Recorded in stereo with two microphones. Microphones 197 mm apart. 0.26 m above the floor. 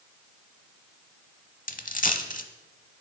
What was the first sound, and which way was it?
A dropped coin, 45° left (ahead or behind).